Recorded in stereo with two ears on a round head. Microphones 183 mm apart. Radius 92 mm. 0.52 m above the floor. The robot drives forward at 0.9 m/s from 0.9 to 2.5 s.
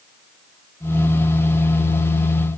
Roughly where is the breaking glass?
No breaking glass in this recording.